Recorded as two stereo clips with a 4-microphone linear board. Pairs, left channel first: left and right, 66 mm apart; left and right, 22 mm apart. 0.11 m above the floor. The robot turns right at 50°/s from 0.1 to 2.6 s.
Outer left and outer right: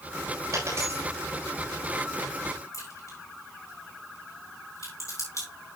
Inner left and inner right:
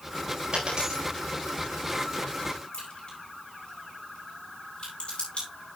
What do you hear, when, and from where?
0.5 s a dropped coin: 60° right (ahead or behind), 8 m; by 1.1 s 30° right (ahead or behind), 8 m
2.7 s a crack: 50° left (ahead or behind), 8 m